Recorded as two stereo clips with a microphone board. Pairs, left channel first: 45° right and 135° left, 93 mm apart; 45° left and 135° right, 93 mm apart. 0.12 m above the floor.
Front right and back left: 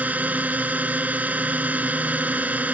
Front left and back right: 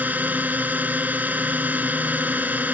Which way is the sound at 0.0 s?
Straight behind.